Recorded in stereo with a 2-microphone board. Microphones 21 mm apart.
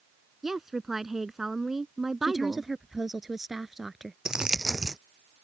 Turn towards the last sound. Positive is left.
turn(degrees=-30)  # may be behind; listen again after turning